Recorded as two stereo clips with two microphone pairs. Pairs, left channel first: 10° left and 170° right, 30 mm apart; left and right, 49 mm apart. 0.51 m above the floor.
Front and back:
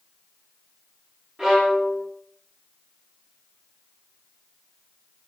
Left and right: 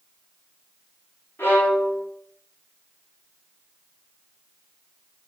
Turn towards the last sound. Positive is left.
turn(degrees=130)